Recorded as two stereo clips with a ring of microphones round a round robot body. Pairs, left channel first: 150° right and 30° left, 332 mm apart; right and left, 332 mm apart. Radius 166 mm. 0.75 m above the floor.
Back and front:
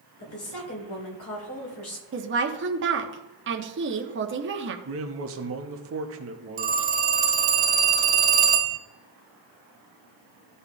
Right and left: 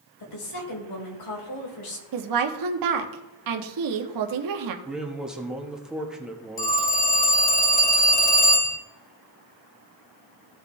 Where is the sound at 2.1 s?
80° left, 1.2 m.